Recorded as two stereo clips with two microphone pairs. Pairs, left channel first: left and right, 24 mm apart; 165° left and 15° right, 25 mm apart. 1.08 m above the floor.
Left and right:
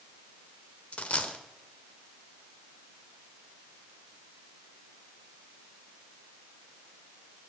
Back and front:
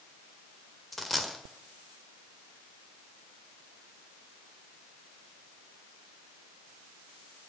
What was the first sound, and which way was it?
A dropped coin, 80° left.